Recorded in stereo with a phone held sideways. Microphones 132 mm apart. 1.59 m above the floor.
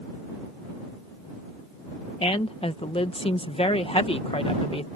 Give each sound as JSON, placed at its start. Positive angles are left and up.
{"t": 2.2, "sound": "a woman speaking", "side_deg": 45}